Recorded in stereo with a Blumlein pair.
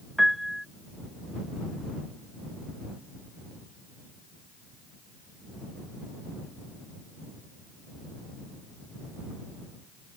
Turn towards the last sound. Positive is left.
turn(degrees=0)